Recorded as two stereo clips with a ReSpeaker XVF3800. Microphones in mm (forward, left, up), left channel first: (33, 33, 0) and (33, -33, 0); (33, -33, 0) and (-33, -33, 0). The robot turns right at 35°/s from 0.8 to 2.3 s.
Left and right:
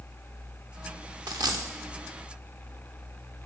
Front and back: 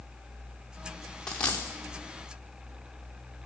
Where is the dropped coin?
80° right, 1.5 m; by 1.6 s 65° right, 1.5 m.